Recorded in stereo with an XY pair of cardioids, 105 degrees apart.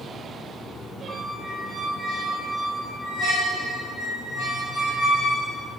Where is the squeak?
45° left, 3 m.